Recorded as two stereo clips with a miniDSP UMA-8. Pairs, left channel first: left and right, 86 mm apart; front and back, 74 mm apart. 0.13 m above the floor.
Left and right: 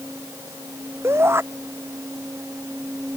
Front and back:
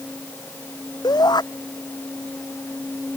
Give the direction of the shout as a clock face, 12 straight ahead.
1 o'clock.